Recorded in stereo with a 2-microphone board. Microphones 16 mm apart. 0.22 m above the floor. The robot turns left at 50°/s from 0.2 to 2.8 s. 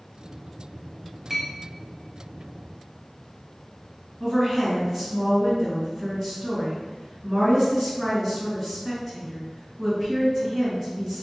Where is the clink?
5° right (ahead or behind), 0.8 m; by 1.5 s centre (ahead or behind), 0.8 m.